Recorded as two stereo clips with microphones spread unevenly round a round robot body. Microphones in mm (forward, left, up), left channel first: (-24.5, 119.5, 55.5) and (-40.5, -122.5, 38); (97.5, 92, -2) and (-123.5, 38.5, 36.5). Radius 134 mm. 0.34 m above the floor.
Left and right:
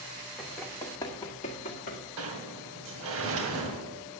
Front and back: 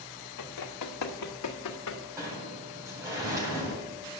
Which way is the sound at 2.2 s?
85° right.